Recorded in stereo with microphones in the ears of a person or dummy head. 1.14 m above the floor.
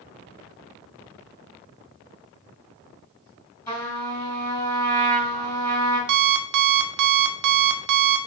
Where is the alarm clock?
60° right (ahead or behind), 0.6 m.